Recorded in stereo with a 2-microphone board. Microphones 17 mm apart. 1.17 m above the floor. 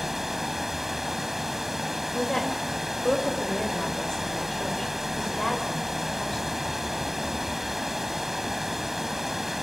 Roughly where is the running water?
Right.